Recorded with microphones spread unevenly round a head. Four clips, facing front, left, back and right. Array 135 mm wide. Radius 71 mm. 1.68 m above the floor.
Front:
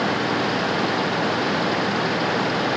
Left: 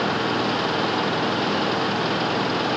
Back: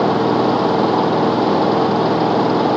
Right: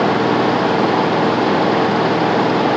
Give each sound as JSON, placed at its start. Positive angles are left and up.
{"t": 0.0, "sound": "an engine running", "azimuth_deg": -145}